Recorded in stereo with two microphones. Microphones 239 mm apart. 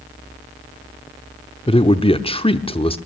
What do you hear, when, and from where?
1.7 s a man speaking: 25° left (ahead or behind), 0.8 m